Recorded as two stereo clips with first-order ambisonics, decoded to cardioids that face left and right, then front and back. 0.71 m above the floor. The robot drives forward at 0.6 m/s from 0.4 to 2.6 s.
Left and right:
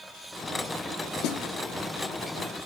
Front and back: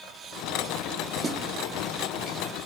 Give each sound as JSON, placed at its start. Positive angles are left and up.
{"t": 1.2, "sound": "a snare drum", "azimuth_deg": 110, "distance_m": 1.2}